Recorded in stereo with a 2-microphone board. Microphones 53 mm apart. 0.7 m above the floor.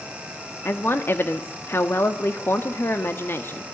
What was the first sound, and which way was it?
A woman speaking, 45° left (ahead or behind).